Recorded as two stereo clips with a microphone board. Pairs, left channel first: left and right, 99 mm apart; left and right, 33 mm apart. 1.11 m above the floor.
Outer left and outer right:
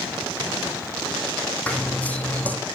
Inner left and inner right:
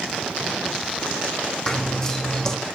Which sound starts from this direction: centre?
Running footsteps, at 1.7 s.